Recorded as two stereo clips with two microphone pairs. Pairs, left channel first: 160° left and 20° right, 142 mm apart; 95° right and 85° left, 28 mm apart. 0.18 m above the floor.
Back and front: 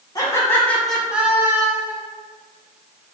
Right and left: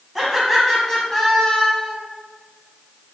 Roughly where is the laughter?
Behind.